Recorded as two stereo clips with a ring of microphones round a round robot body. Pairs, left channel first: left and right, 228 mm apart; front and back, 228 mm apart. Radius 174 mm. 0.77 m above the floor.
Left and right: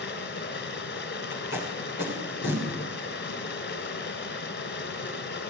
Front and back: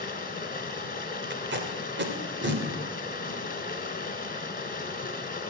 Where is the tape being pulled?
140° left, 3.5 m.